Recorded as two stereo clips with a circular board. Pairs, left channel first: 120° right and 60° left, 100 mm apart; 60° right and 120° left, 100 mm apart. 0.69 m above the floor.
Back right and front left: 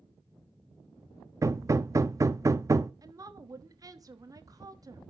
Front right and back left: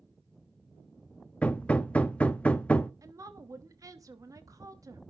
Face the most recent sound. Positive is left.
turn(degrees=85)